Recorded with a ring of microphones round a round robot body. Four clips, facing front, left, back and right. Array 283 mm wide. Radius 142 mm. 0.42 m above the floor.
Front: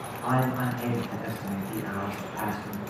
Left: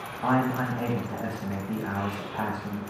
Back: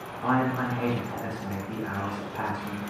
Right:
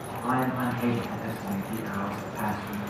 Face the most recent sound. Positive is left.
turn(degrees=100)